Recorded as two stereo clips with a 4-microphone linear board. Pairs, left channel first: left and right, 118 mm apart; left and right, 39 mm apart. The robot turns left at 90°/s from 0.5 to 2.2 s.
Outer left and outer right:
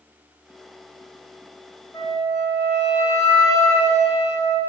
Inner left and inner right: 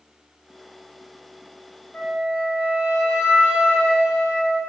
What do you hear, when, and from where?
1.9 s a flute: 30° left (ahead or behind), 1.2 m; by 4.6 s 20° left (ahead or behind), 1.2 m